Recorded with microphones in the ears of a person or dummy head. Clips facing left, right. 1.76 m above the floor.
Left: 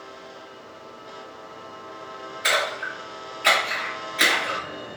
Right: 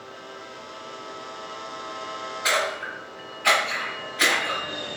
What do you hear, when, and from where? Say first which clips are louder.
2.4 s a splash: even; 30° left (ahead or behind), 1.3 m